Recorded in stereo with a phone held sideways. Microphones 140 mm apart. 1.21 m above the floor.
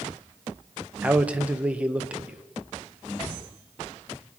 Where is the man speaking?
10° right (ahead or behind), 1.0 m.